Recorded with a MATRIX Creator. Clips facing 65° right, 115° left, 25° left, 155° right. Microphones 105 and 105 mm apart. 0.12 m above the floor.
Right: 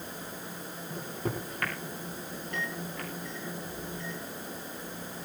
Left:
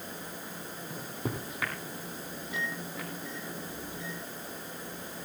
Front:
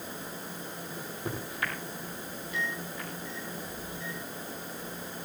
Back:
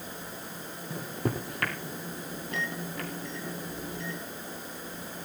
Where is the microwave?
165° right, 4 m.